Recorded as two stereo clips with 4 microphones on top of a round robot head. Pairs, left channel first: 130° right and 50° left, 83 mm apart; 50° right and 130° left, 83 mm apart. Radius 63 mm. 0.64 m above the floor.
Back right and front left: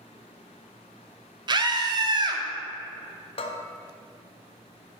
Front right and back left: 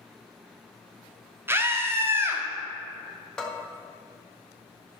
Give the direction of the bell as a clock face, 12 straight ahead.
4 o'clock.